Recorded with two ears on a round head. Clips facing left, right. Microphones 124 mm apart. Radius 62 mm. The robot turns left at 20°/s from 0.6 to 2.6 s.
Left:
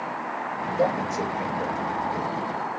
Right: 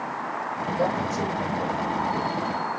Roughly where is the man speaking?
Left.